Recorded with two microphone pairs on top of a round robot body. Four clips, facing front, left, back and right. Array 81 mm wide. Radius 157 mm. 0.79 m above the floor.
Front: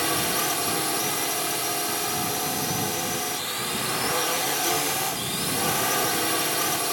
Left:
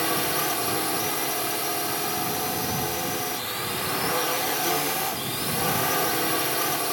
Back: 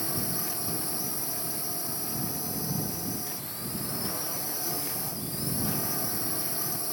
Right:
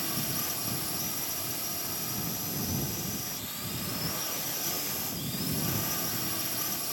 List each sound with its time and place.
0.0 s a drone: 50° left